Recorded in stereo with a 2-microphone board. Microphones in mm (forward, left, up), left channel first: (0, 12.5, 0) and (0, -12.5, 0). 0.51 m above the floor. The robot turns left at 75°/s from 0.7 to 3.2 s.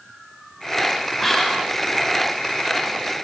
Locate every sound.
1.2 s whispering: straight behind, 3 m; by 1.7 s 140° left, 3 m